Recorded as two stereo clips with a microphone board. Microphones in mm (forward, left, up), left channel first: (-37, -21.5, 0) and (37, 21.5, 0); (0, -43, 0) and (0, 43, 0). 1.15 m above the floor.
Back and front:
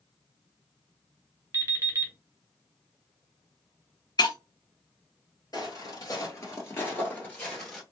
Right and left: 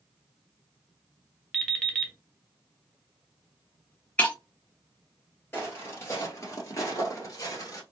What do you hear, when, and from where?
1.5 s an alarm clock: 10° right, 1.0 m
4.2 s breaking glass: 160° right, 0.8 m
5.5 s footsteps: 145° right, 1.6 m; by 7.8 s 70° right, 1.5 m